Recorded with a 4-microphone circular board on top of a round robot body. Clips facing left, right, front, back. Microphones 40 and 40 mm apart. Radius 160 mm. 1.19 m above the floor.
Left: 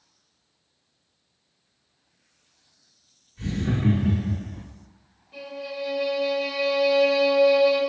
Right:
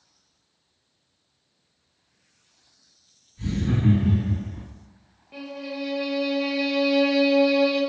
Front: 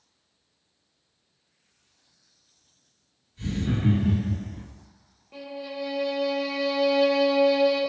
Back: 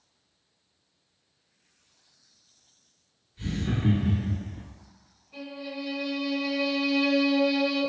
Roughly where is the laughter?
Left.